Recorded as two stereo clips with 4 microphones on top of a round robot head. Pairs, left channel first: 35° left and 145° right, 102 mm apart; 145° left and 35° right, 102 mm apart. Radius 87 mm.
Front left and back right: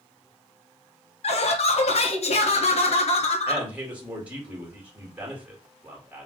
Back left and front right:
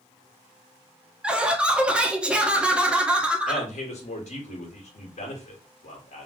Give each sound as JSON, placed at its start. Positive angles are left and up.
{"t": 1.2, "sound": "laughter", "azimuth_deg": 45, "distance_m": 1.2}
{"t": 3.5, "sound": "a man speaking", "azimuth_deg": 140, "distance_m": 2.0}